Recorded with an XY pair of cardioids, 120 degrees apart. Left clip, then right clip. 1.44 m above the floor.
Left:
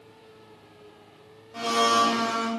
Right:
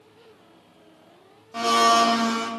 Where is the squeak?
No squeak in this recording.